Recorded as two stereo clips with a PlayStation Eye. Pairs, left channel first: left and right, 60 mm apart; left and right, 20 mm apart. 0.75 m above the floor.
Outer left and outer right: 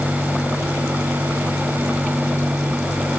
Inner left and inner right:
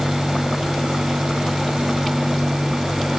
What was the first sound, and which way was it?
Only background noise.